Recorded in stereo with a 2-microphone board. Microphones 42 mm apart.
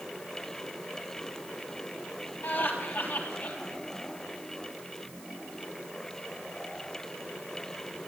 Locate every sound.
2.4 s laughter: 55° left (ahead or behind), 3.5 m